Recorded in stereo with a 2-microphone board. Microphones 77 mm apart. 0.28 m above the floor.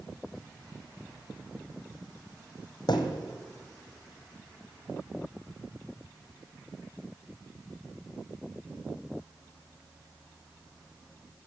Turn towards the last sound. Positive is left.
turn(degrees=70)  # may be behind; listen again after turning